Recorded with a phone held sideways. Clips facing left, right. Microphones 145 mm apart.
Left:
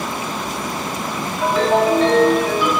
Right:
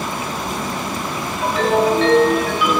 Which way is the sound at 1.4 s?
40° left (ahead or behind).